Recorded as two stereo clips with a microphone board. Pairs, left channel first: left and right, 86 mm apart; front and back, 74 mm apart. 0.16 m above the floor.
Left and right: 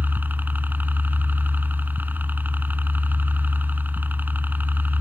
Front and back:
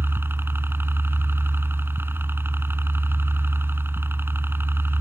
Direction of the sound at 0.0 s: 145° right.